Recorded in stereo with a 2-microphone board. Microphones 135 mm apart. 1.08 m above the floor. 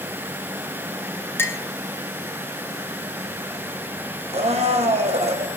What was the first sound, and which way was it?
A clink, 15° left (ahead or behind).